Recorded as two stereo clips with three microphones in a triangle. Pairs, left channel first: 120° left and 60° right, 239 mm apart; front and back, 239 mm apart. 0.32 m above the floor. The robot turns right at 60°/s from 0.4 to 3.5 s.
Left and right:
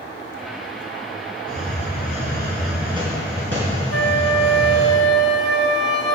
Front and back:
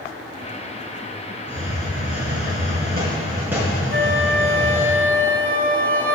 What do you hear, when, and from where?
1.5 s a hiss: 140° left, 3 m; by 4.9 s 100° right, 3 m
3.9 s a flute: 140° left, 0.8 m